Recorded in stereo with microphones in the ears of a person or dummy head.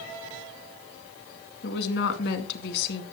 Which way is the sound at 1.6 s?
70° left (ahead or behind).